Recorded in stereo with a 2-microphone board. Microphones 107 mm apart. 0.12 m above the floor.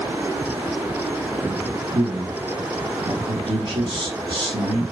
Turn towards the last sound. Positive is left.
turn(degrees=-50)  # may be behind; listen again after turning